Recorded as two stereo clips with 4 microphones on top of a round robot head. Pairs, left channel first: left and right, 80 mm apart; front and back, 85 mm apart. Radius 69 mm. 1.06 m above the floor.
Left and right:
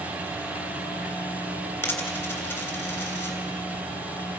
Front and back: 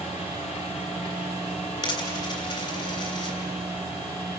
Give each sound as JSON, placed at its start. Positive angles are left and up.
{"t": 1.8, "sound": "a dropped coin", "azimuth_deg": 25, "distance_m": 3.0}